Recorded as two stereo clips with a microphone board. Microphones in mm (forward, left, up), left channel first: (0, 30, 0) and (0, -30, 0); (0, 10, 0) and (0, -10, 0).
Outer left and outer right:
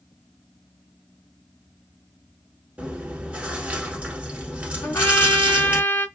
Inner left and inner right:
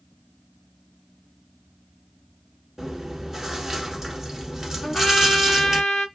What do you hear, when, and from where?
2.8 s chewing: 20° right (ahead or behind), 1.2 m
4.8 s a trumpet: 40° left (ahead or behind), 1.9 m